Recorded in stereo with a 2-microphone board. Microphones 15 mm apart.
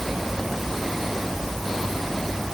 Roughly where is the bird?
I don't hear a bird.